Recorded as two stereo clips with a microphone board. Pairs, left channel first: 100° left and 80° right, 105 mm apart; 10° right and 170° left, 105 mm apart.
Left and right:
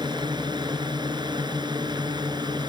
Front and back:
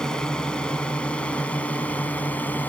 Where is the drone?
90° right; by 2.7 s 75° right.